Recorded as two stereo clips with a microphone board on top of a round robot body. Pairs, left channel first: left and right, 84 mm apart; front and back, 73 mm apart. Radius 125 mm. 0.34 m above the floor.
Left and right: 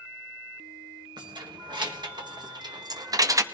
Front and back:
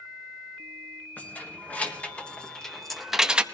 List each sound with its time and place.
1.2 s keys jangling: 65° right, 1.9 m; by 3.5 s 110° right, 0.8 m